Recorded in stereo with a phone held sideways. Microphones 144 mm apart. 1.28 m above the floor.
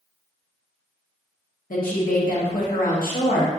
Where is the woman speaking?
80° left, 1.3 m.